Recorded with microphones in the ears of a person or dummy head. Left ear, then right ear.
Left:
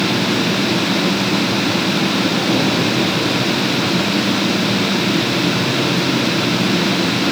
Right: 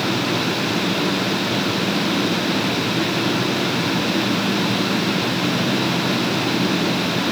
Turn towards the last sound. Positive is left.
No sound to turn to.